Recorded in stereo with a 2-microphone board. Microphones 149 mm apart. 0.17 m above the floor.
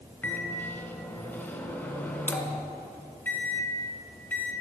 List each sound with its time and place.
0.2 s a microwave: 15° left (ahead or behind), 1.1 m